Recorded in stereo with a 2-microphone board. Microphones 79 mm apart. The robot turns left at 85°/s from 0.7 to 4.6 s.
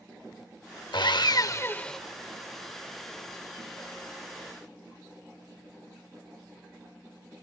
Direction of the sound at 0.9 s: 95° left.